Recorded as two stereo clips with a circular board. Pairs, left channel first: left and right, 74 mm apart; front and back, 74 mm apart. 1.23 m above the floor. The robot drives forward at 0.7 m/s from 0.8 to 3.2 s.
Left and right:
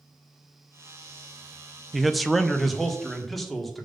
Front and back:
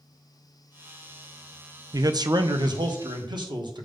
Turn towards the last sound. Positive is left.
turn(degrees=180)